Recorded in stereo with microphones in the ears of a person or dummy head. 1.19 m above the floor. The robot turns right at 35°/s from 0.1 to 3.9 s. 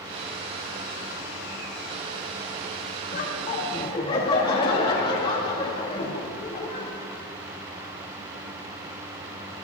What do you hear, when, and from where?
3.1 s laughter: 50° left (ahead or behind), 1.8 m; by 6.9 s 20° left (ahead or behind), 1.8 m